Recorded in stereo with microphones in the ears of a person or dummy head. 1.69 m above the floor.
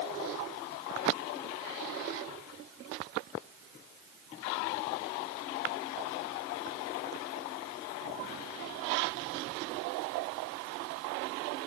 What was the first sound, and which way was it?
Only background noise.